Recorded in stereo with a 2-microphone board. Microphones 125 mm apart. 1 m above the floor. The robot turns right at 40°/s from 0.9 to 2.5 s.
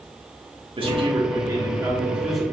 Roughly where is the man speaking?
Ahead right.